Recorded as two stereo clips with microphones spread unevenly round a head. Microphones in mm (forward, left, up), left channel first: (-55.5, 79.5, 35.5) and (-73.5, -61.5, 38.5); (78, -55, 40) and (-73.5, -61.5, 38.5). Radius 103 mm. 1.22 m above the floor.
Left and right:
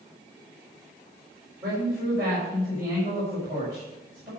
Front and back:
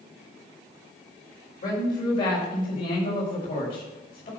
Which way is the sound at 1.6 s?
20° right.